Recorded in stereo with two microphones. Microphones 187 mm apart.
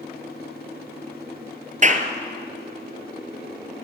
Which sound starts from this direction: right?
A clap, at 1.8 s.